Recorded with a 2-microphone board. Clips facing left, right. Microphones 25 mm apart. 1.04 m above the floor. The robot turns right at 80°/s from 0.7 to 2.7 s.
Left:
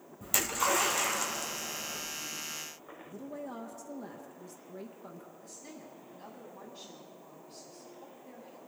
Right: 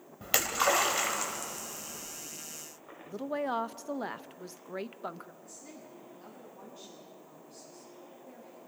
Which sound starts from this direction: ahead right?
A splash, at 0.2 s.